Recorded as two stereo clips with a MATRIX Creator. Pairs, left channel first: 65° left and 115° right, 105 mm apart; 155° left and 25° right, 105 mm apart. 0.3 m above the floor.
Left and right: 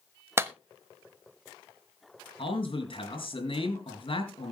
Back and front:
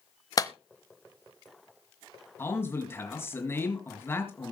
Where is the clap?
165° right, 1.0 m.